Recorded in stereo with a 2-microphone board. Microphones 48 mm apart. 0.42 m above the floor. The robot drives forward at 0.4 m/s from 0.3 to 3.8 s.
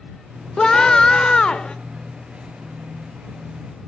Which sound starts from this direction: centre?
A scream, at 0.6 s.